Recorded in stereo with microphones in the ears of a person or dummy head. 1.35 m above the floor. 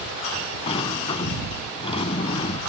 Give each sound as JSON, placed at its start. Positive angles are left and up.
{"t": 0.7, "sound": "a sliding door", "side_deg": 25}